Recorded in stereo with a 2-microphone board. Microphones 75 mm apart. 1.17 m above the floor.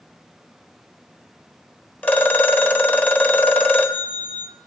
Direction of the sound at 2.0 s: 20° left (ahead or behind).